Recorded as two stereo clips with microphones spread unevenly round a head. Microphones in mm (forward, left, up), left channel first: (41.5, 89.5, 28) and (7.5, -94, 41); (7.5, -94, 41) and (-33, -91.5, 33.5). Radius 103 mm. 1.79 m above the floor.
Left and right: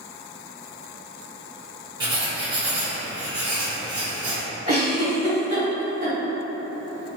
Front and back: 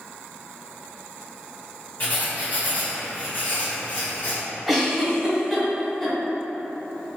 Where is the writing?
35° right, 1.2 m.